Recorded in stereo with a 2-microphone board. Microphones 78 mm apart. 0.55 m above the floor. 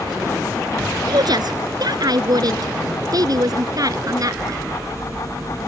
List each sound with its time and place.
1.1 s a woman speaking: 60° right (ahead or behind); by 4.6 s 50° right (ahead or behind)